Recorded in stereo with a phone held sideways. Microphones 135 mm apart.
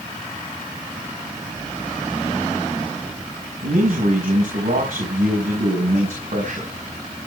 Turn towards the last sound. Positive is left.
turn(degrees=-75)  # may be behind; listen again after turning